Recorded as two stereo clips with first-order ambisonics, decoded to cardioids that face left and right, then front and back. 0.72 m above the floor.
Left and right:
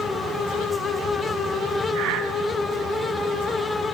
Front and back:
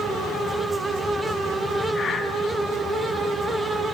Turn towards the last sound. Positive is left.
turn(degrees=-65)